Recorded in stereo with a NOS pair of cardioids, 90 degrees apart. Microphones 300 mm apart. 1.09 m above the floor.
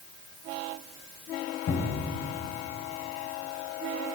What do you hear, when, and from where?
1.7 s a cupboard door: 65° left, 4.5 m